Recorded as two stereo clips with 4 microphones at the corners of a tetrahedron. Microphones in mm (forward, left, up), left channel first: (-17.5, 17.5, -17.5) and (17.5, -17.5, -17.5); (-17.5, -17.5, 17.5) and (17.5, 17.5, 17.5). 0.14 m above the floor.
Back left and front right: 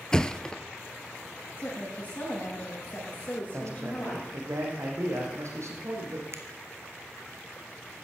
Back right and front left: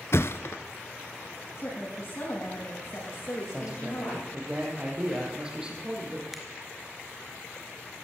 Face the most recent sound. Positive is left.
turn(degrees=-40)